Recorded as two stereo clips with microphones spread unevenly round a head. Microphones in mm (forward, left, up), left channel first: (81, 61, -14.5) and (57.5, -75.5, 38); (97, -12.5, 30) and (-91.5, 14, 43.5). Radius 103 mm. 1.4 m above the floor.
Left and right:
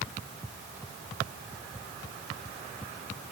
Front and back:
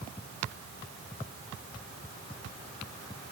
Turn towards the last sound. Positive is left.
No sound to turn to.